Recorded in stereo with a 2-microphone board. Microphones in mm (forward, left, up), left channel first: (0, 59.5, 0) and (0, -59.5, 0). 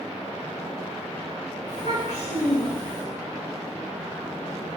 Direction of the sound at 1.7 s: 75° left (ahead or behind).